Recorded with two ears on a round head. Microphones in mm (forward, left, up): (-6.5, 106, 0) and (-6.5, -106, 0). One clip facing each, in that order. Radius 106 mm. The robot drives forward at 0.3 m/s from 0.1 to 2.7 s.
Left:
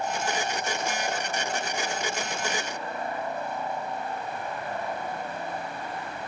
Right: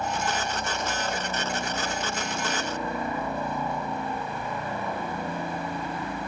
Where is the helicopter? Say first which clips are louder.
Even; 70° right (ahead or behind).